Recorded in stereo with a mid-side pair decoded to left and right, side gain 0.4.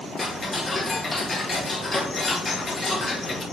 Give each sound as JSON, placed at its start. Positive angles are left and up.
{"t": 0.2, "sound": "ticking", "azimuth_deg": 35, "distance_m": 1.8}